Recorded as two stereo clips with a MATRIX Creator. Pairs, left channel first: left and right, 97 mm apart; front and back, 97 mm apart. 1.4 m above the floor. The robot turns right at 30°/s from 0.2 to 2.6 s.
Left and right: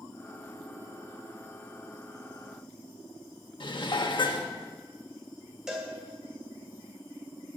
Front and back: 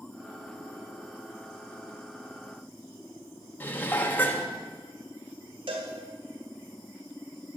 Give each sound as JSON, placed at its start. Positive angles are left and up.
{"t": 3.6, "sound": "dishes clattering", "azimuth_deg": 65, "distance_m": 1.2}
{"t": 5.7, "sound": "a cowbell", "azimuth_deg": -175, "distance_m": 2.0}